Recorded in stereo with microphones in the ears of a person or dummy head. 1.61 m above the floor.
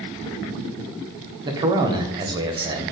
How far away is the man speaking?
About 0.6 m.